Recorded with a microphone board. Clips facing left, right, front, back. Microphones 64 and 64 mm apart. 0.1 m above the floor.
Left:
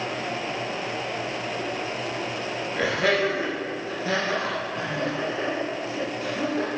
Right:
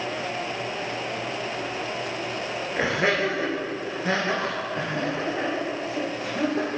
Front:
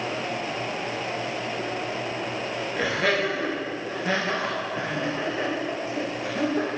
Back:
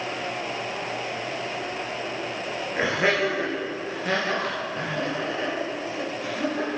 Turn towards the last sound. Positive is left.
turn(degrees=-45)